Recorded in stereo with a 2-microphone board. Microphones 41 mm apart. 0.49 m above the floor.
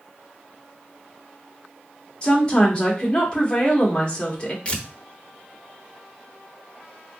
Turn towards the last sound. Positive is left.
turn(degrees=25)  # may be behind; listen again after turning